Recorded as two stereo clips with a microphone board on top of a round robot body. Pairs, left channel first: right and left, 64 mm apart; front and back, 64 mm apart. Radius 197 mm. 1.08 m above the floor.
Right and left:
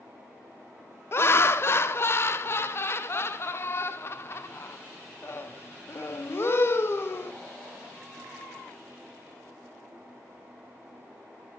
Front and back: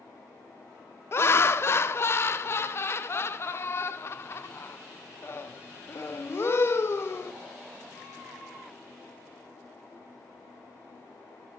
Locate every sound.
1.1 s laughter: 45° right, 0.6 m